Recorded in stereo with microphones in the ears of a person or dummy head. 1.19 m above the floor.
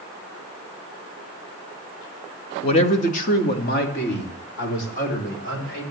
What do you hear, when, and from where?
2.6 s a man speaking: 30° left (ahead or behind), 1.4 m; by 5.8 s 60° left (ahead or behind), 5 m